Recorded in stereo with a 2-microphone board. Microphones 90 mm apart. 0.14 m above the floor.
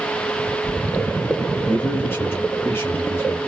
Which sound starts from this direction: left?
A man speaking, at 1.7 s.